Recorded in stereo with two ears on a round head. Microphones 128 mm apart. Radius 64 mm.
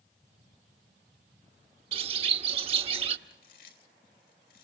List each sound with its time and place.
1.9 s a bird: 40° right (ahead or behind), 0.9 m
3.3 s chewing: 75° left (ahead or behind), 3.5 m